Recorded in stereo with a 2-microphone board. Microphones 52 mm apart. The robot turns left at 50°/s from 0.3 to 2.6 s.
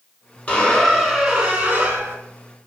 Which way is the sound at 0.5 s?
30° left.